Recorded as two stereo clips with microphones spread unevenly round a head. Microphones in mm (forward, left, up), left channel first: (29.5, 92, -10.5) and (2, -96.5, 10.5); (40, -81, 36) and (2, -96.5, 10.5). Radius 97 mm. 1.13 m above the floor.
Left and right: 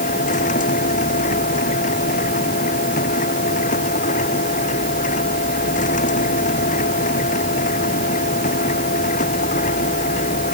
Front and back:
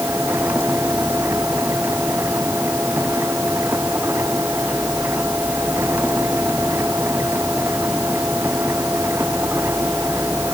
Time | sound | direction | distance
0.0 | a machine running | 135° left | ?